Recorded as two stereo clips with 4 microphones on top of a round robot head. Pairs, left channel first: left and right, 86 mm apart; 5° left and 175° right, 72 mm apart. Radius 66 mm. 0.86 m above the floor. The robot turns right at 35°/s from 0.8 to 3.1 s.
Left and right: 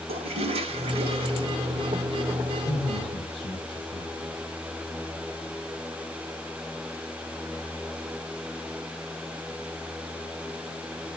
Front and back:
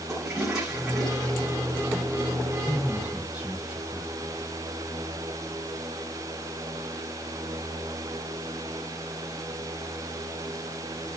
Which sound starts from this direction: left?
A man speaking, at 2.6 s.